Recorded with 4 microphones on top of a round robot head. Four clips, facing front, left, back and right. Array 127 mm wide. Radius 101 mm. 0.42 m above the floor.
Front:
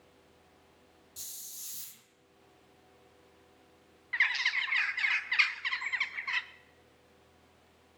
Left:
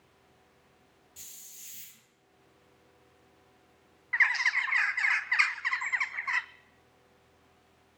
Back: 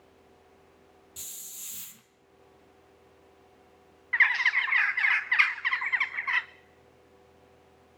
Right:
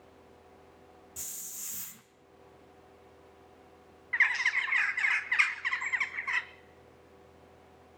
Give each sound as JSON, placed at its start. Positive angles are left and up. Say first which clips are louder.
{"t": 1.2, "sound": "a hiss", "louder": "right 8 dB, back 5 dB", "azimuth_deg": -115, "distance_m": 0.8}
{"t": 4.1, "sound": "a bird", "louder": "left 1 dB, back 7 dB", "azimuth_deg": 155, "distance_m": 0.5}